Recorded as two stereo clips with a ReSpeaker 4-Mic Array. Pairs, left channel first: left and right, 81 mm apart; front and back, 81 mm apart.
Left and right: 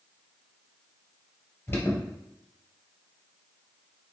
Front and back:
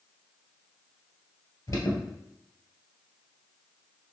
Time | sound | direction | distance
1.7 | an alarm | 35° left | 1.9 m